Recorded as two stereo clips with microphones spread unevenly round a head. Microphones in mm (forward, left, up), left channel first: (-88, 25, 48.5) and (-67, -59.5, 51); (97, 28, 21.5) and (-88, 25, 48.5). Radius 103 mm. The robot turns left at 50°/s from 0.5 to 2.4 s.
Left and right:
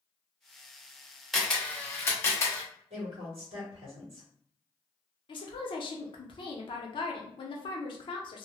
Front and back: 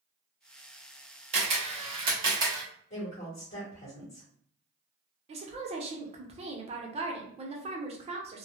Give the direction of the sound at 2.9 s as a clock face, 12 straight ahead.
2 o'clock.